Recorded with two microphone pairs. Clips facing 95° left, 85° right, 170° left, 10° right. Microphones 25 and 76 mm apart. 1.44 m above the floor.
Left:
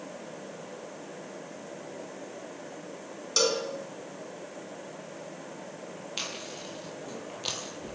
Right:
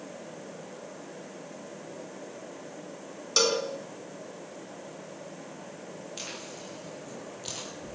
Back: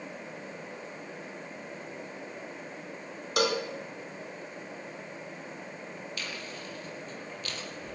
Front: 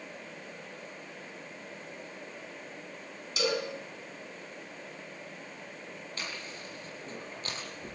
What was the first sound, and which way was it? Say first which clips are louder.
A cowbell: right 1 dB, back 3 dB; 160° right.